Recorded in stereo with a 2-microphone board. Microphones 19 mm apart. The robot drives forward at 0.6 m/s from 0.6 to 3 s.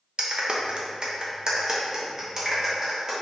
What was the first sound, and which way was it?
A clap, 50° right (ahead or behind).